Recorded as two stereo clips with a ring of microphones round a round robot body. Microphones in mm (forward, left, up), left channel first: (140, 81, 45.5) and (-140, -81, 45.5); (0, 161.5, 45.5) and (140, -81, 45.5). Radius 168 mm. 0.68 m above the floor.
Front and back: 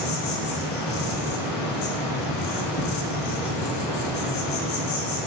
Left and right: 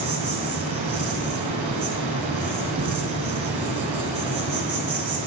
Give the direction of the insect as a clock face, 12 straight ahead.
12 o'clock.